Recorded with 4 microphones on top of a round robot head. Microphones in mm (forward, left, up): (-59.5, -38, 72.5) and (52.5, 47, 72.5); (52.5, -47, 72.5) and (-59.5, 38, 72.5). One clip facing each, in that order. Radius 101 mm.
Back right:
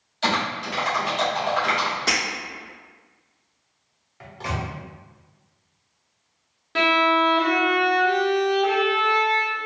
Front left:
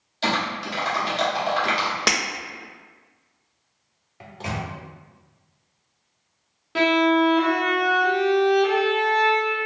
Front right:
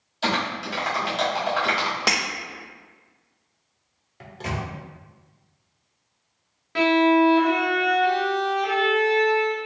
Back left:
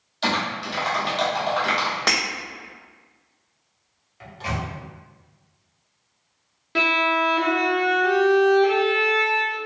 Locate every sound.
0.2 s typing on a keyboard: 40° left, 1.4 m
2.1 s breaking glass: 45° left, 0.5 m
4.2 s a microwave: 25° right, 0.7 m
6.8 s a violin: 110° left, 1.1 m